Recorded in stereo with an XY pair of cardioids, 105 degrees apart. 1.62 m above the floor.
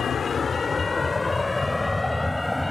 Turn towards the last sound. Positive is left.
turn(degrees=5)